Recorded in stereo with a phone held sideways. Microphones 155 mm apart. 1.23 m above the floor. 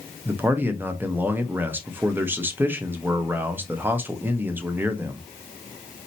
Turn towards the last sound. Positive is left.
turn(degrees=-10)  # may be behind; listen again after turning